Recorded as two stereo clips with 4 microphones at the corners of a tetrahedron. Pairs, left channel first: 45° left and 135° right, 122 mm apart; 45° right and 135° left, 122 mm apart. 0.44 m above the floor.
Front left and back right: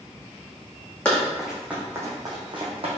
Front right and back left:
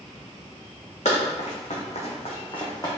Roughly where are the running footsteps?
Ahead right.